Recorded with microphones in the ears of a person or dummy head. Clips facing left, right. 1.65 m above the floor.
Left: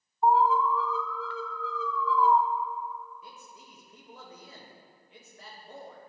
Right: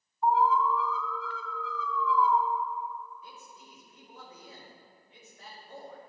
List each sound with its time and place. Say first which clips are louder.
0.2 s an alarm: left 2 dB; 35° left (ahead or behind), 0.6 m
3.2 s a man speaking: even; 50° left (ahead or behind), 2.0 m